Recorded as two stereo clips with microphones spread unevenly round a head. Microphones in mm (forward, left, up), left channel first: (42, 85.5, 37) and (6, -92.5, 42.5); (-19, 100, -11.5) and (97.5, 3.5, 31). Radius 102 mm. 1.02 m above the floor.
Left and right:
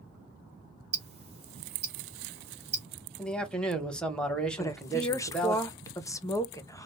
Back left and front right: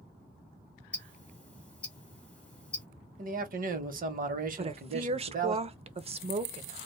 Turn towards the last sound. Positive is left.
turn(degrees=15)